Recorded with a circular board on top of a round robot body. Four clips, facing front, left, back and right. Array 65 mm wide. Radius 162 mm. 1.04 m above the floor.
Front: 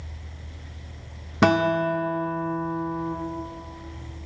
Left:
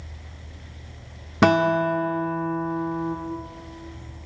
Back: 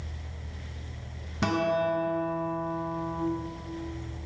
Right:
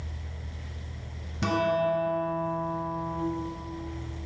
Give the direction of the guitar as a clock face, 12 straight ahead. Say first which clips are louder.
Left 7 dB, front 6 dB; 10 o'clock.